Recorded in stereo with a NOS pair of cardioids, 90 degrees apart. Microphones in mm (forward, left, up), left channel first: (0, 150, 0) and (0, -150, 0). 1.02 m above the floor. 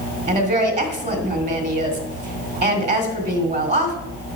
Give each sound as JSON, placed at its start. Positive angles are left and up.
{"t": 0.3, "sound": "a woman speaking", "azimuth_deg": -20, "distance_m": 2.5}